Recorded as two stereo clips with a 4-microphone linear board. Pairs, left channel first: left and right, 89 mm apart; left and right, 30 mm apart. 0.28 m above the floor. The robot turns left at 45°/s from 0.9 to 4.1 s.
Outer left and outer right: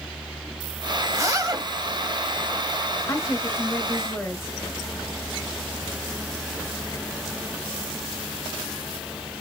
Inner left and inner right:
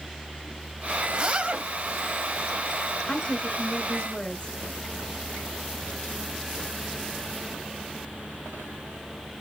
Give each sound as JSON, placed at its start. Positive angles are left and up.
{"t": 1.1, "sound": "a zipper", "side_deg": -35, "distance_m": 0.6}
{"t": 3.1, "sound": "a woman speaking", "azimuth_deg": 110, "distance_m": 1.1}